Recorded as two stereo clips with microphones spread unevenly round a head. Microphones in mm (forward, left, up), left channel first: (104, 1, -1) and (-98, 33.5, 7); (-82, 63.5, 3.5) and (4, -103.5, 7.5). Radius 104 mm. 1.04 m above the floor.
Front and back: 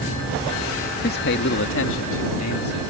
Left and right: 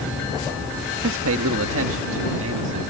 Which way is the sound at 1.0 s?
55° right.